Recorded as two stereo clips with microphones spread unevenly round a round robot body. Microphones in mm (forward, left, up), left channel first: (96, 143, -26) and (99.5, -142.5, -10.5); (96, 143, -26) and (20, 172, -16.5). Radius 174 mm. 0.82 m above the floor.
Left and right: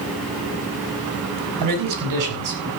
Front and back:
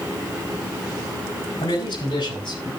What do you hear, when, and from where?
1.6 s a man speaking: 80° right, 6.5 m; by 2.7 s 75° right, 6 m